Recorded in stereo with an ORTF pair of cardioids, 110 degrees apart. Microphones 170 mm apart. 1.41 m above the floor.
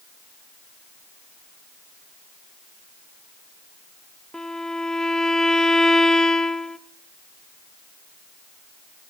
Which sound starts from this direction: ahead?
A violin, at 4.3 s.